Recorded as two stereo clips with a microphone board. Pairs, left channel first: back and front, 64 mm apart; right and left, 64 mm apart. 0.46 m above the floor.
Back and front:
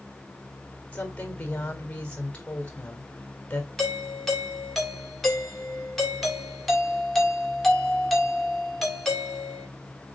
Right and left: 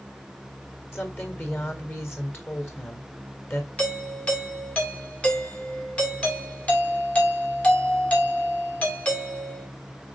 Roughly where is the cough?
No cough in this recording.